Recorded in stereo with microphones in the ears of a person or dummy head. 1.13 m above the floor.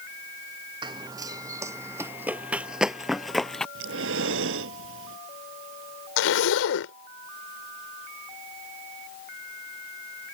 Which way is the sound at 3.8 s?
80° right.